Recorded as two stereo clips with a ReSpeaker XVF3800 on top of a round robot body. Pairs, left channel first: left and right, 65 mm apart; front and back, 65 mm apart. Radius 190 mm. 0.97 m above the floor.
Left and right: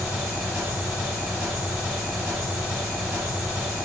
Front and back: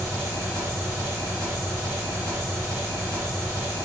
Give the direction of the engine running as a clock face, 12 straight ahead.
1 o'clock.